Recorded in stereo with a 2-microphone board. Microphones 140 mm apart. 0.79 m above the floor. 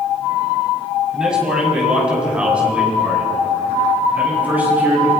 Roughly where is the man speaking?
Centre.